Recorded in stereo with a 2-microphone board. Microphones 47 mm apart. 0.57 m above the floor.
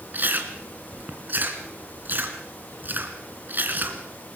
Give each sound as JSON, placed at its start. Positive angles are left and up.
{"t": 0.1, "sound": "chewing", "side_deg": -40, "distance_m": 2.5}